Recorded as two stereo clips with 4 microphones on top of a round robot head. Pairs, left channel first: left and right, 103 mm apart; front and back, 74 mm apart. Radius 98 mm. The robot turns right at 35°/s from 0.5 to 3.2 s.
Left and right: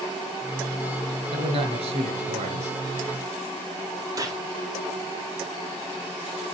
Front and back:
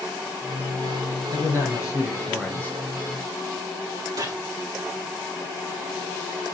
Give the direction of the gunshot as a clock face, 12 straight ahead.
5 o'clock.